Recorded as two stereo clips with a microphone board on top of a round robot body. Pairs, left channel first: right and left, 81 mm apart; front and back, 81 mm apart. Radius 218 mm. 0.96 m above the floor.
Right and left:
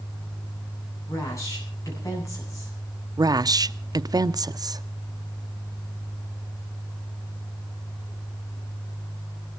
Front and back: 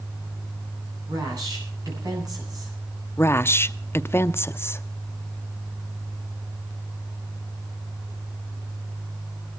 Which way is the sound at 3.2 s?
55° left.